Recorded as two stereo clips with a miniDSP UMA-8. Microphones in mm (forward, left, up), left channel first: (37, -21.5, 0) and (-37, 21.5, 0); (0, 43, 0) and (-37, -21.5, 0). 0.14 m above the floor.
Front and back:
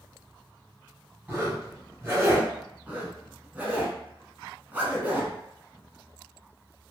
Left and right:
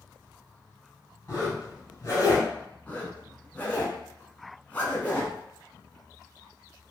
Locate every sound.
1.3 s a zipper: 95° left, 1.8 m
2.9 s a zipper: 100° left, 0.8 m